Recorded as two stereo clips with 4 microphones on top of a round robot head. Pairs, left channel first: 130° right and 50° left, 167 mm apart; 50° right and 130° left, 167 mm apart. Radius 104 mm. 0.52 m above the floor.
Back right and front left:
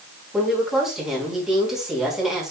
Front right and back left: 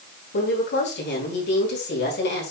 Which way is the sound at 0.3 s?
35° right.